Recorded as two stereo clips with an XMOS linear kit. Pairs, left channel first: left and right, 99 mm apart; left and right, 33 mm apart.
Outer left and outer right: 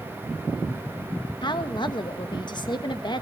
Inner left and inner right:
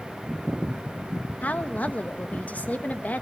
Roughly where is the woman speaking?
Left.